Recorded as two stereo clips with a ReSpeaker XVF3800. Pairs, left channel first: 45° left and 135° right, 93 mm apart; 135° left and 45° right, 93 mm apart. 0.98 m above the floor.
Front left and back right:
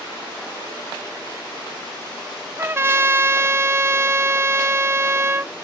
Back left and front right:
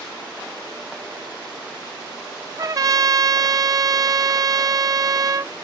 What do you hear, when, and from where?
2.6 s a trumpet: 80° right